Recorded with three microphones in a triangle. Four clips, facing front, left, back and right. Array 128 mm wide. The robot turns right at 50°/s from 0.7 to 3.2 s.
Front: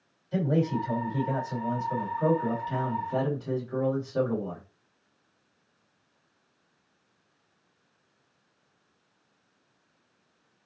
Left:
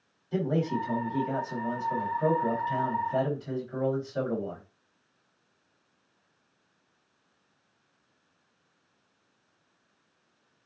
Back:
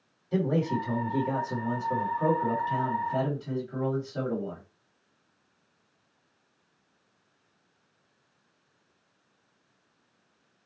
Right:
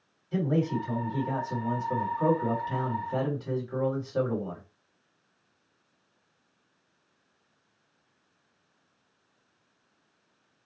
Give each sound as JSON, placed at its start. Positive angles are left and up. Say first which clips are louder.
{"t": 0.3, "sound": "a man speaking", "louder": "right 1 dB, even", "azimuth_deg": 175, "distance_m": 2.0}